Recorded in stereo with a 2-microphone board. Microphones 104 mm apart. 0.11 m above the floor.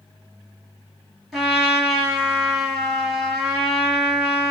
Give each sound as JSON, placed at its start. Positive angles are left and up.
{"t": 1.3, "sound": "a trumpet", "side_deg": 0, "distance_m": 1.7}